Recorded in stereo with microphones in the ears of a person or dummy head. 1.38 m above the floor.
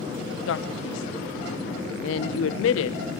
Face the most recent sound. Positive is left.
turn(degrees=70)  # may be behind; listen again after turning